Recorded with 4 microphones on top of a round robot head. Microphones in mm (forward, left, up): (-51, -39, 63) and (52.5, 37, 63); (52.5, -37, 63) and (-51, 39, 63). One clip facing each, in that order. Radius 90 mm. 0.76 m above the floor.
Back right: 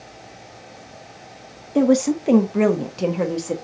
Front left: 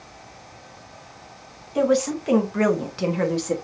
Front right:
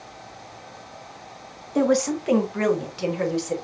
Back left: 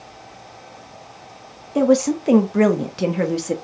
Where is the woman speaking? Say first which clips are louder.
Back right 4 dB, back left 4 dB; 145° right, 0.7 m; by 3.5 s 135° left, 1.2 m.